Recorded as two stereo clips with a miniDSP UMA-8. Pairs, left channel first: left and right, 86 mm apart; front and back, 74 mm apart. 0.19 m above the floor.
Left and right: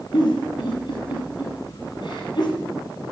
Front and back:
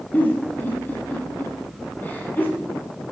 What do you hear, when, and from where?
0.1 s a giggle: 65° left, 4 m